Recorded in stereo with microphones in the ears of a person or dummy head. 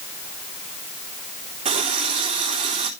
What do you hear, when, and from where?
1.6 s a running tap: 40° right (ahead or behind), 3 m